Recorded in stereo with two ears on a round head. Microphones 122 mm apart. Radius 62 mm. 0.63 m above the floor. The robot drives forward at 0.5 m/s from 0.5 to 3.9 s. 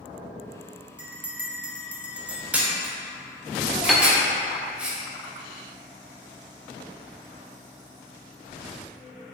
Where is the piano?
Centre (ahead or behind), 0.6 m.